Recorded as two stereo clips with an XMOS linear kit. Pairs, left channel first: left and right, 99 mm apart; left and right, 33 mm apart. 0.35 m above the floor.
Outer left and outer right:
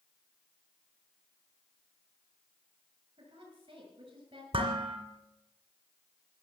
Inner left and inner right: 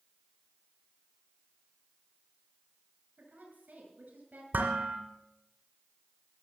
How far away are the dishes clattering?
About 2.5 m.